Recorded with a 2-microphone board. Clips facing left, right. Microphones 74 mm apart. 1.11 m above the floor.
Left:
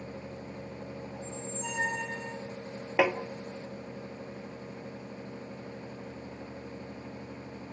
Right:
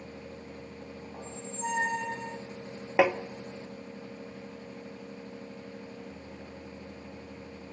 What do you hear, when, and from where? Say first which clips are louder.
1.1 s a squeak: right 1 dB; 50° right (ahead or behind), 3 m
3.0 s tapping: right 2 dB; 10° right (ahead or behind), 1.2 m